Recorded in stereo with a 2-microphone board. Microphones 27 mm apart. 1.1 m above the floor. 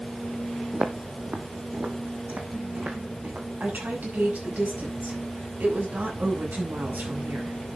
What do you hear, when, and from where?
0.7 s footsteps: 55° right (ahead or behind), 1.8 m; by 3.5 s 60° right (ahead or behind), 3 m
3.6 s a woman speaking: 85° right, 7 m